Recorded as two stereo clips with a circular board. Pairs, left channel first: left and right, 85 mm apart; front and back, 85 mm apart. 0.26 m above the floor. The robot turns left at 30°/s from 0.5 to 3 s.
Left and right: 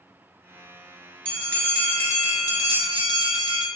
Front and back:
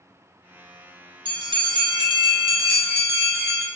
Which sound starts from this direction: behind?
A bell, at 1.2 s.